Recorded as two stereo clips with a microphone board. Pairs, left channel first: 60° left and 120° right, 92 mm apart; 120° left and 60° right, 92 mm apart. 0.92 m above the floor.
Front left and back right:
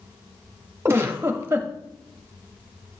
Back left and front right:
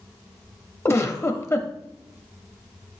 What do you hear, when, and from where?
0.8 s a giggle: straight behind, 0.6 m